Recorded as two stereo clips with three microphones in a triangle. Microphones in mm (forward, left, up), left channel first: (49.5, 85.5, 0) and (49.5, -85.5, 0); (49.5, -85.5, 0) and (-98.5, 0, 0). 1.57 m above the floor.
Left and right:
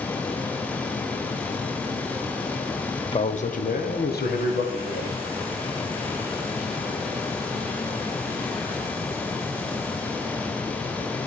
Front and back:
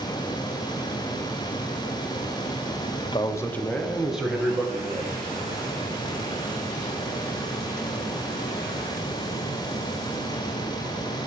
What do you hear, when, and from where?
3.0 s a man speaking: 25° left, 0.6 m; by 5.2 s 70° left, 2.5 m